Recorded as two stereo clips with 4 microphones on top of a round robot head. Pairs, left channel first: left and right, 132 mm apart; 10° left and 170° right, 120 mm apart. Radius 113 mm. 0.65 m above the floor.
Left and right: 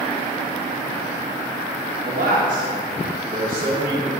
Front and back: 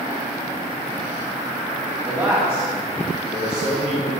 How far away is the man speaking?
About 1.7 m.